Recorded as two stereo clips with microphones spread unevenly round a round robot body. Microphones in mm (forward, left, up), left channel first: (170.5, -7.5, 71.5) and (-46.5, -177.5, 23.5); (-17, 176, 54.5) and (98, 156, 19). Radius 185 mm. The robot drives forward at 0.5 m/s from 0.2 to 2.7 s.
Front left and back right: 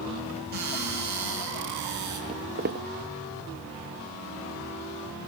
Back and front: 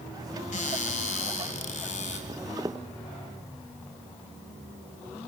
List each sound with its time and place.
0.5 s a cupboard door: 155° left, 3.5 m; by 2.2 s 160° left, 4.5 m
2.3 s footsteps: 75° right, 0.6 m; by 2.9 s 110° right, 0.6 m